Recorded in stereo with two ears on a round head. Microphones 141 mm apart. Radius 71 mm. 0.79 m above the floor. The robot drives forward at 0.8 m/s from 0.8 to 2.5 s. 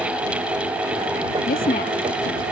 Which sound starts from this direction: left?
A woman speaking, at 1.5 s.